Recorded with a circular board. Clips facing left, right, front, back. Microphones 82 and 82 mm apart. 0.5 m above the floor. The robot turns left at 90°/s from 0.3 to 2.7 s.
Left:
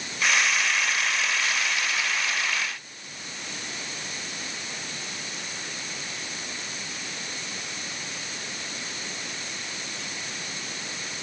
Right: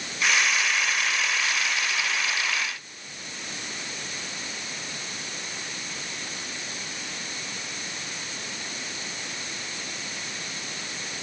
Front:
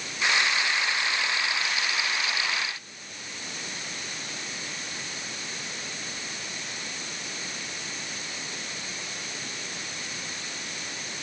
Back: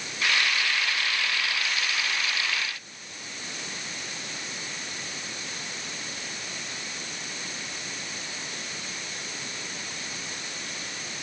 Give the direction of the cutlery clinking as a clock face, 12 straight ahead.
No cutlery clinking in this recording.